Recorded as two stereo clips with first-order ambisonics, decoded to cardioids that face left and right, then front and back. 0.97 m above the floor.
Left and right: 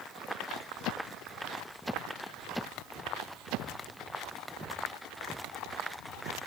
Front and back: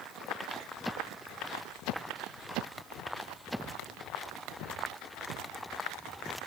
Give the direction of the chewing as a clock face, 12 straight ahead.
I don't hear chewing.